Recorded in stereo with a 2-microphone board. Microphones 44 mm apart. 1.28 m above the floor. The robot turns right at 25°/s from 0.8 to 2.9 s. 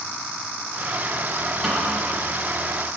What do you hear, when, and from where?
1.6 s a snare drum: 5° right (ahead or behind), 1.9 m; by 1.9 s 15° right (ahead or behind), 1.9 m